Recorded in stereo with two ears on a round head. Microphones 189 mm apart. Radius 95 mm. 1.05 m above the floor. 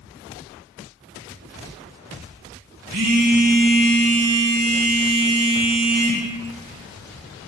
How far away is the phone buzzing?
About 2.0 m.